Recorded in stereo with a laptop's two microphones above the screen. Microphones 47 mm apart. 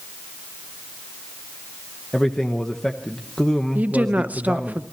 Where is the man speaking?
10° left (ahead or behind), 0.9 m.